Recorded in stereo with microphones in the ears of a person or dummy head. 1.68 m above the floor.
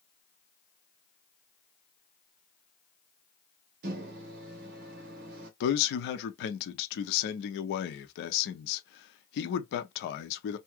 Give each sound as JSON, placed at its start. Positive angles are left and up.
{"t": 3.8, "sound": "a microwave", "side_deg": -60, "distance_m": 0.8}
{"t": 5.6, "sound": "a man speaking", "side_deg": 70, "distance_m": 0.6}